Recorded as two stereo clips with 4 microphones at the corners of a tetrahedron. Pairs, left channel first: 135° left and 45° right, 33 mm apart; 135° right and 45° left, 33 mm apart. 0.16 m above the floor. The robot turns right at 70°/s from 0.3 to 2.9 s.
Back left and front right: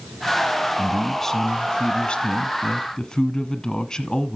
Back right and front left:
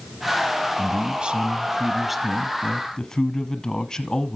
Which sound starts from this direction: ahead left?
A man speaking, at 0.8 s.